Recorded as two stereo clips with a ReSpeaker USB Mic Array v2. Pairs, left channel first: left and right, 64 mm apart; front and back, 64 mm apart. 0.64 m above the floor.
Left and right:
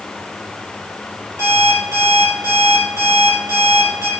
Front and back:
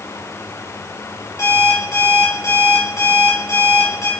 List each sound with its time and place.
1.4 s an alarm clock: 45° right, 4 m